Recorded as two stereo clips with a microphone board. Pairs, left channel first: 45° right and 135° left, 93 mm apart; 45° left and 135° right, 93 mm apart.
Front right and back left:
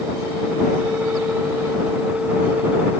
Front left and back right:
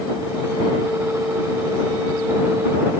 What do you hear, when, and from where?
Only background noise.